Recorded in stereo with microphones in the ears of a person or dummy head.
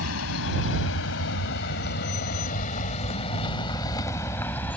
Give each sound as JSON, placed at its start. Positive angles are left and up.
{"t": 0.0, "sound": "a vehicle", "side_deg": 85}